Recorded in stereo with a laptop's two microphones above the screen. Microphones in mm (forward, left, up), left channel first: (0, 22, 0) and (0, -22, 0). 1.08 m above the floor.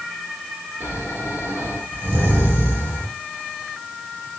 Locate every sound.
0.8 s snoring: 75° right (ahead or behind), 3 m